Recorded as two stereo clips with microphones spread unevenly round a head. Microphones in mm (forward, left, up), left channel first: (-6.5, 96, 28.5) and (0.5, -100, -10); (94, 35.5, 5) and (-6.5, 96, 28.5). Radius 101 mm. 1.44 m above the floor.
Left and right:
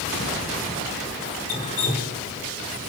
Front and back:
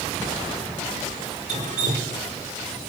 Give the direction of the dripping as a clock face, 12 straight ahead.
7 o'clock.